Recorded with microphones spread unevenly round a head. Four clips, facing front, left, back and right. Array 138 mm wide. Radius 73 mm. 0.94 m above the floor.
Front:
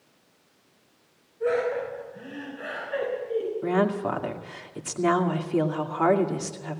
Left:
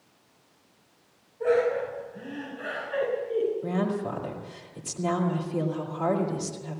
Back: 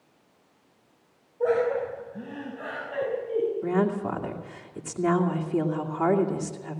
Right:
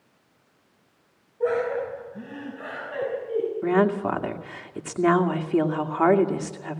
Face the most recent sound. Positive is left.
turn(degrees=-65)